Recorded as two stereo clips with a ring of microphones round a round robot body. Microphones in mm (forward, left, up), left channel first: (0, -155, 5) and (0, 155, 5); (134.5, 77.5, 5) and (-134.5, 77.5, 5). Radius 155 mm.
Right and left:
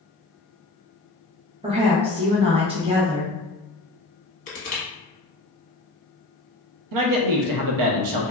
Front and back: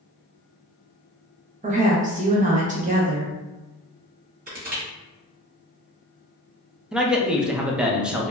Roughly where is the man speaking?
Left.